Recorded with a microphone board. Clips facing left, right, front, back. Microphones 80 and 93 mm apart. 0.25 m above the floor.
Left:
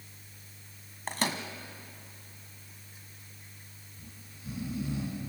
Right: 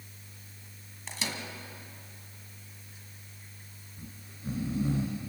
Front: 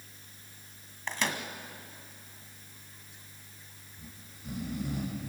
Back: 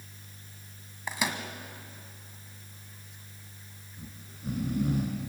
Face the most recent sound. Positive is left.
turn(degrees=-140)